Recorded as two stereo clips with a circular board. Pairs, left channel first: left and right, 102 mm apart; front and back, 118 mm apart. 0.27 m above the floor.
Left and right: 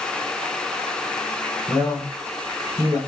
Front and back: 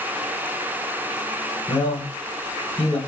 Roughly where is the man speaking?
Ahead right.